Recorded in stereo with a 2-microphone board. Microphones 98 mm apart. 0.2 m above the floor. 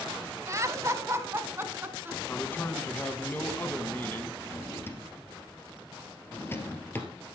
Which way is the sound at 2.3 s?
20° left (ahead or behind).